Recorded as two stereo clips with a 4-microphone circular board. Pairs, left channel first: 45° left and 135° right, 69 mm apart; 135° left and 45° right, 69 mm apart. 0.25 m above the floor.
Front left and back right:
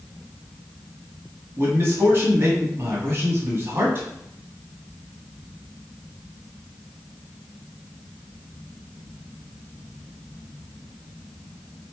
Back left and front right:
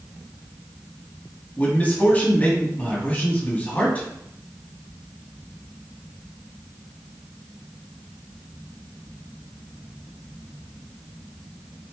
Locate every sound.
1.6 s a man speaking: 170° right, 1.9 m